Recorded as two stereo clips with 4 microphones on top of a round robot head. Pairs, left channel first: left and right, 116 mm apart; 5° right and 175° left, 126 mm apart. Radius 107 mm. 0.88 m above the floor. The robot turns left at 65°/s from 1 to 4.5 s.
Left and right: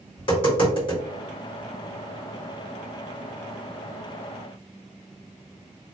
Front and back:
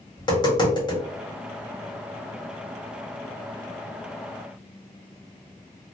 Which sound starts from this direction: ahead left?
Tapping, at 0.2 s.